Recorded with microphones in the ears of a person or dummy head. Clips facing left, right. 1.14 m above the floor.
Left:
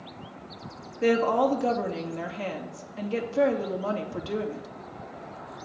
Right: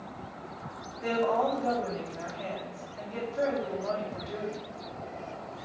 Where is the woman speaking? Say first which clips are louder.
Left 5 dB; 70° left (ahead or behind), 2.5 m.